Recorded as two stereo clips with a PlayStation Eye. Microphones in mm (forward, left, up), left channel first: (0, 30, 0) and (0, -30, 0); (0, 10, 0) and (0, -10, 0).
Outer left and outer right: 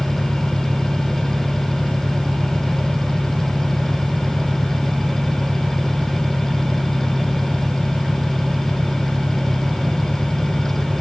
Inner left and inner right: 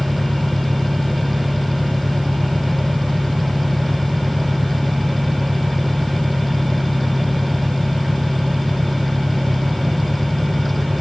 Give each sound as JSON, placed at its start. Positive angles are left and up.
{"t": 0.0, "sound": "an engine running", "side_deg": -15}